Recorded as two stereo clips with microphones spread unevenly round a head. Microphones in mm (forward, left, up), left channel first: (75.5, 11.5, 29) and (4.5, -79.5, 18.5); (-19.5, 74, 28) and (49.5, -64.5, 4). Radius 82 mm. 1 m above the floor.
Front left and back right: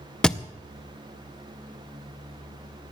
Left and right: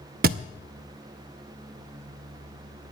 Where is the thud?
30° right, 0.6 m.